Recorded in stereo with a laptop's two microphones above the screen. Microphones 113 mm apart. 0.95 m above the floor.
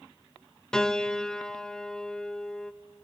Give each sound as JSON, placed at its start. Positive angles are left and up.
{"t": 0.7, "sound": "a piano", "side_deg": 5, "distance_m": 0.6}